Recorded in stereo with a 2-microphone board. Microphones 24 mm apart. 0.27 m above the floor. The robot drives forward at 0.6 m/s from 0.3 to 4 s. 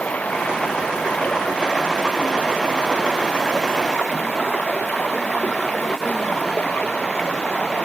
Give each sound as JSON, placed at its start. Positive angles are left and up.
{"t": 0.0, "sound": "running water", "side_deg": 85}